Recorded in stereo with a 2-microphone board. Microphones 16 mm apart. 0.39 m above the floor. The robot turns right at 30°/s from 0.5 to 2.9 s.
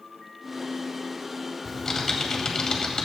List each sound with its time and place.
1.6 s typing on a keyboard: 25° left, 2 m; by 3.1 s 60° left, 2 m